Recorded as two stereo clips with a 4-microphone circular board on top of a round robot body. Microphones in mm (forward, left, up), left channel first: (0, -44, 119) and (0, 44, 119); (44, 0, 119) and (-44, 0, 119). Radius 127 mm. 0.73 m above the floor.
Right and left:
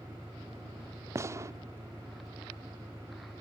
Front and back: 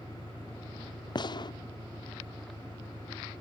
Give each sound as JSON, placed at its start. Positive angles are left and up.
{"t": 0.0, "sound": "an engine running", "azimuth_deg": -155}
{"t": 1.1, "sound": "a gunshot", "azimuth_deg": 35}